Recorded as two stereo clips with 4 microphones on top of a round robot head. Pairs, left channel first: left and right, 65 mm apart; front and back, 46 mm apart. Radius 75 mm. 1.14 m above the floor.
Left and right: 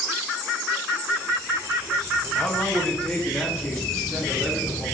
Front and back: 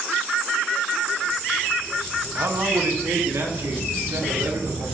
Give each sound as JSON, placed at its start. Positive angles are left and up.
{"t": 2.4, "sound": "a man speaking", "azimuth_deg": 160, "distance_m": 2.0}